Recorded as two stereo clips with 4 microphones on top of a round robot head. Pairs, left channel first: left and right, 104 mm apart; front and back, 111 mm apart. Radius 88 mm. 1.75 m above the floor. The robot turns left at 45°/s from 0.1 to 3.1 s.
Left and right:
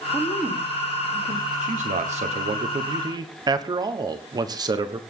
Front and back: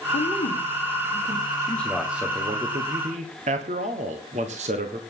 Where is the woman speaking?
10° left, 3 m; by 1.5 s 50° right, 3 m.